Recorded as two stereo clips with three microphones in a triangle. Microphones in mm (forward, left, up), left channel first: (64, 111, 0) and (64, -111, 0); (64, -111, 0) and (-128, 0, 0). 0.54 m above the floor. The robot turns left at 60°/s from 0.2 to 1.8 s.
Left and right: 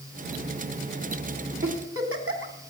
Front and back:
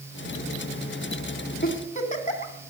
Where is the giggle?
75° right, 2 m; by 2.5 s 90° right, 2 m.